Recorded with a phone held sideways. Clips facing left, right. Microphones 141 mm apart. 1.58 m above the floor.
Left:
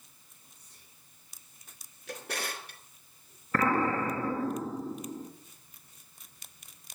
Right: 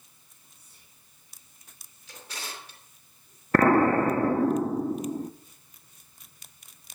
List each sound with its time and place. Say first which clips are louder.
0.5 s whispering: even; 10° right (ahead or behind), 2.5 m
2.1 s a drawer: left 5 dB; 60° left (ahead or behind), 3 m
3.5 s an explosion: right 8 dB; 55° right (ahead or behind), 0.8 m